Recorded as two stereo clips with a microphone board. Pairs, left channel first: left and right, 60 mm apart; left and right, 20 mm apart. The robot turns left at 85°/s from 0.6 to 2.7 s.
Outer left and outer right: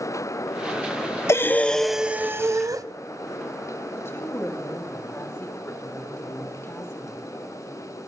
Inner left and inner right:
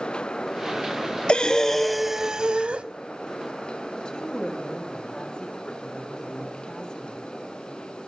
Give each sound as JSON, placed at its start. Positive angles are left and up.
{"t": 1.3, "sound": "breathing", "azimuth_deg": 50, "distance_m": 0.6}
{"t": 4.0, "sound": "a woman speaking", "side_deg": 50, "distance_m": 2.5}